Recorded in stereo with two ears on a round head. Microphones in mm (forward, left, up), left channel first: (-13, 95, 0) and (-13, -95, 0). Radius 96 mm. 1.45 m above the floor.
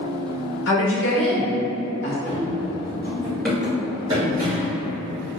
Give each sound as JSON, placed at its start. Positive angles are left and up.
{"t": 0.7, "sound": "a woman speaking", "side_deg": 60, "distance_m": 1.0}
{"t": 2.2, "sound": "running footsteps", "side_deg": 45, "distance_m": 2.0}